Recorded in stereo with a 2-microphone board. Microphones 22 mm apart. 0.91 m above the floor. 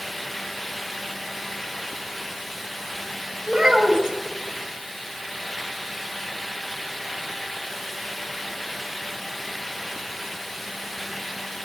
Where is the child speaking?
25° right (ahead or behind), 2.5 m.